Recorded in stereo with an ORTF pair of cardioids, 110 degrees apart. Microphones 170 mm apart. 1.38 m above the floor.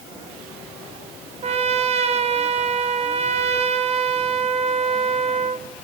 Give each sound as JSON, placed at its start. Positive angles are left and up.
{"t": 1.4, "sound": "a trumpet", "azimuth_deg": -40, "distance_m": 1.1}